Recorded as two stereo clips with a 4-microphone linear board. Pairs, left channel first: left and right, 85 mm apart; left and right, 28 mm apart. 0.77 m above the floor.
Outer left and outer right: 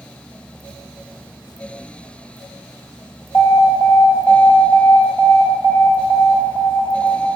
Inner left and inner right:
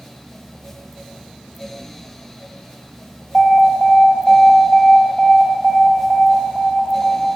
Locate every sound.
3.3 s an alarm: 70° left (ahead or behind), 2.5 m